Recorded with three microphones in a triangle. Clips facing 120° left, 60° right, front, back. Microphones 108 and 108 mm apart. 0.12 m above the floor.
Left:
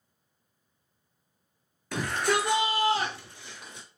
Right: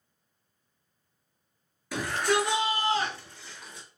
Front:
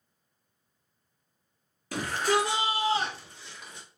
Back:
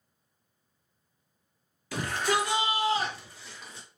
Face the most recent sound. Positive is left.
turn(degrees=65)